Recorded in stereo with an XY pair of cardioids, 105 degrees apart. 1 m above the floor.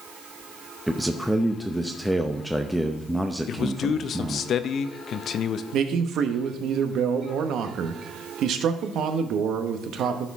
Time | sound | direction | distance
0.9 | a man speaking | straight ahead | 0.6 m
3.5 | a man speaking | 60° left | 0.5 m
5.7 | a man speaking | 70° right | 0.9 m